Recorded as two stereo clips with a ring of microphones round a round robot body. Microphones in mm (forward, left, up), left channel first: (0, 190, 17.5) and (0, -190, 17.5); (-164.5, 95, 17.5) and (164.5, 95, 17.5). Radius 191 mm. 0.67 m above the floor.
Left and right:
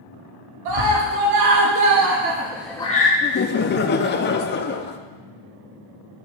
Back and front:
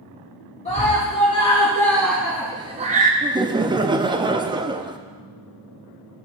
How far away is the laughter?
About 0.5 m.